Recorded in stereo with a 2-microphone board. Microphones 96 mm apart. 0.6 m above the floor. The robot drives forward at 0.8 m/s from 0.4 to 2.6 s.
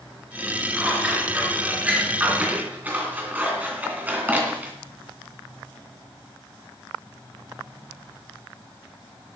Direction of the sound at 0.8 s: 10° right (ahead or behind).